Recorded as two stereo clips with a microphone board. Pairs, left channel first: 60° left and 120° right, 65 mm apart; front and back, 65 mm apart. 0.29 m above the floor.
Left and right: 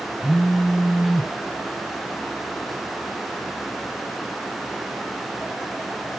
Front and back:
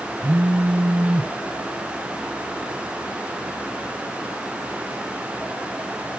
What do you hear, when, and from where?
0.2 s a phone buzzing: 135° left, 0.8 m